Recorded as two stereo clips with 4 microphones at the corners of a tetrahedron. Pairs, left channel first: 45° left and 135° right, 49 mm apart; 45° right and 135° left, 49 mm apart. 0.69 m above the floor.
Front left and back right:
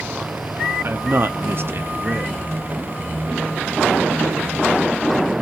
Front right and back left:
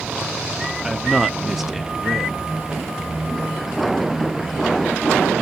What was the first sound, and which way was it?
A man speaking, 140° right.